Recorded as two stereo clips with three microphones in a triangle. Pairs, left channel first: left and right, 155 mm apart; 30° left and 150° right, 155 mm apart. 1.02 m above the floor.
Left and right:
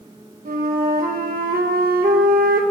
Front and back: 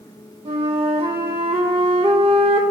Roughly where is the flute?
Right.